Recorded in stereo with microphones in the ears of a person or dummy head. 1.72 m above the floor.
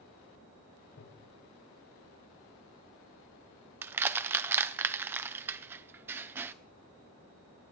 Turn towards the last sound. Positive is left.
turn(degrees=-10)  # may be behind; listen again after turning